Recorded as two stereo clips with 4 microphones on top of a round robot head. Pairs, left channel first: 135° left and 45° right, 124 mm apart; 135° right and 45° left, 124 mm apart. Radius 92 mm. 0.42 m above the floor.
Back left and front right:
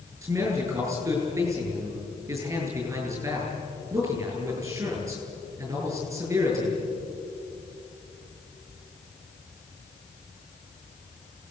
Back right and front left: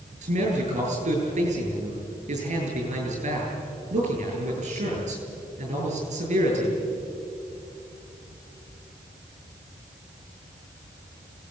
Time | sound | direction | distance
0.2 | a man speaking | 15° left | 8 m